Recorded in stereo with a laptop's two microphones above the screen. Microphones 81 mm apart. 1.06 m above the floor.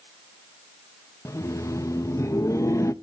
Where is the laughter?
40° left (ahead or behind), 1.0 m.